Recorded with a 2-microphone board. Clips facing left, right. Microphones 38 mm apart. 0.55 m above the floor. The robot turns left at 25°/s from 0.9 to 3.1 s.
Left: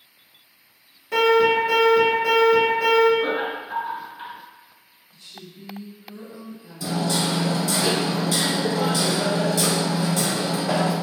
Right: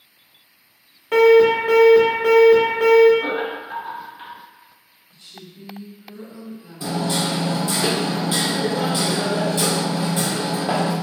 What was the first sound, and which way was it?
An alarm, 65° right.